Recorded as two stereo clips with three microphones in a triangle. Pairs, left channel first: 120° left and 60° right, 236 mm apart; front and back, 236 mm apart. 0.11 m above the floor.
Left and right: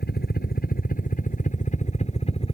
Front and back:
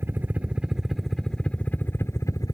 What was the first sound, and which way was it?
A helicopter, 105° left.